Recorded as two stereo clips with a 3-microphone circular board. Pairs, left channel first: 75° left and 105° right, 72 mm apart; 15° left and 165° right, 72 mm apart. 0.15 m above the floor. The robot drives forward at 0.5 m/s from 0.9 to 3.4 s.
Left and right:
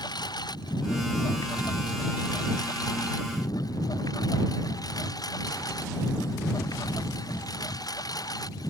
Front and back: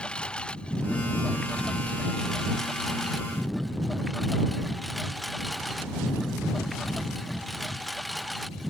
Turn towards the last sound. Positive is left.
turn(degrees=105)